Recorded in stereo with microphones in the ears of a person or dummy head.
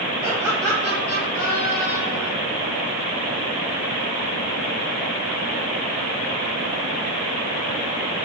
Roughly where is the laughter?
Right.